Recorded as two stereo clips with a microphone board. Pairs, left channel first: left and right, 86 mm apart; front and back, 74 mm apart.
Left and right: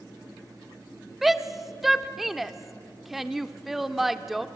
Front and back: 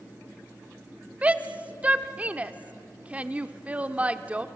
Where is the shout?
175° right, 0.9 m.